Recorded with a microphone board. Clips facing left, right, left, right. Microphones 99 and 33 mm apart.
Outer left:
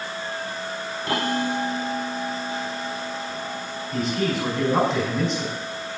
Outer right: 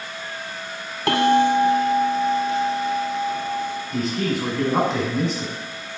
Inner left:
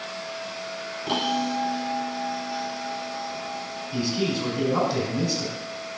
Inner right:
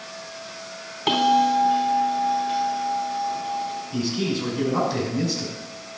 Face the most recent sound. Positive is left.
turn(degrees=0)  # may be behind; listen again after turning